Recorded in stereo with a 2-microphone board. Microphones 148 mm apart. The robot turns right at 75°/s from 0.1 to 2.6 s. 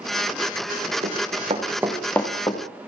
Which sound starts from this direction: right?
Running footsteps, at 1.0 s.